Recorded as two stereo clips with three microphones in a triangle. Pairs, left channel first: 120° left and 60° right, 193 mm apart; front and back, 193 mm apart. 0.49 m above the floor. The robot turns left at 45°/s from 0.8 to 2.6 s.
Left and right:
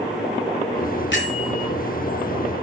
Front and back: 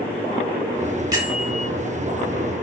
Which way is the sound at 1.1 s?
110° left.